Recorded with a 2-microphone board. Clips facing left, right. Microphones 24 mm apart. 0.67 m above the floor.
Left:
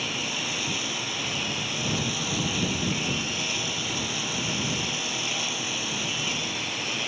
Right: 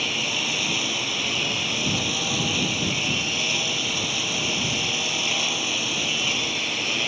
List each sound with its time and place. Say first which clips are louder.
0.0 s a lawn mower: right 4 dB; 25° right (ahead or behind)